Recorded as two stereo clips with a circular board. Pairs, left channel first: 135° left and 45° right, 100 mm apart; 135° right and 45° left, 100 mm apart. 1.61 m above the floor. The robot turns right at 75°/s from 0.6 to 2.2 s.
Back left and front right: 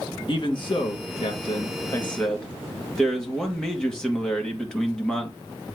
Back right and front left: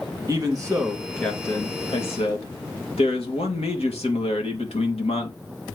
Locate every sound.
0.3 s a man speaking: 100° left, 2.5 m; by 5.4 s 140° right, 2.5 m